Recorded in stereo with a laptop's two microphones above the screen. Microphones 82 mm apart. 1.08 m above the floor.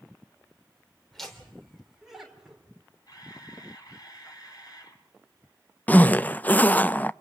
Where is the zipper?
20° left (ahead or behind), 0.5 m.